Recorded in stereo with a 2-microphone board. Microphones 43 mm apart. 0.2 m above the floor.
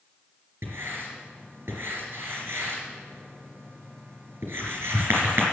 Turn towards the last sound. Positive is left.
turn(degrees=-60)  # may be behind; listen again after turning